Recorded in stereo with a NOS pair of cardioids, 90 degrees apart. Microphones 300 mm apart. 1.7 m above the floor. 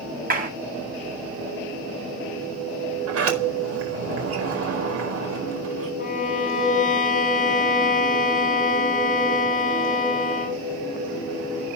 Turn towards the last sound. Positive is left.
turn(degrees=25)